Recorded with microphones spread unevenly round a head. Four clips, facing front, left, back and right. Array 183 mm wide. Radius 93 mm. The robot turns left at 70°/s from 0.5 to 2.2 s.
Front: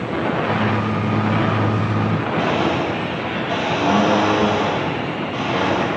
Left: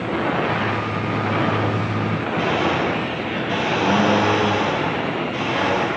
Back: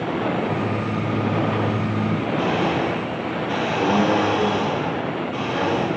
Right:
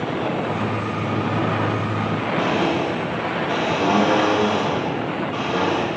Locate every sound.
2.4 s a blender: 60° right, 2.5 m